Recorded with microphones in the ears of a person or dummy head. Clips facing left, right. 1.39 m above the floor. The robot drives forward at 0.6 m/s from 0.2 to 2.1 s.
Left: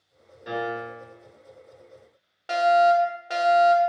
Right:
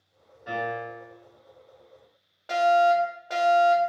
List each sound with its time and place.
0.5 s a piano: 35° left (ahead or behind), 1.7 m; by 1.1 s 40° left (ahead or behind), 1.4 m
2.5 s a fire alarm: 30° left (ahead or behind), 0.8 m